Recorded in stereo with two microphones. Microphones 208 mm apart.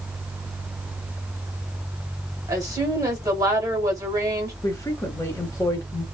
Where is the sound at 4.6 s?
15° left (ahead or behind), 1.2 m.